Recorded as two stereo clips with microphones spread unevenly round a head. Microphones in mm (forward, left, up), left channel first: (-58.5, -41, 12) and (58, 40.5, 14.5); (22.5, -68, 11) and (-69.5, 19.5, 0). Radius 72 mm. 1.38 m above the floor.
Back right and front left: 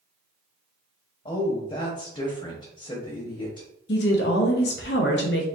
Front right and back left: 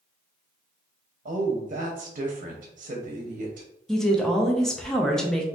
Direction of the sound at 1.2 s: 160° left.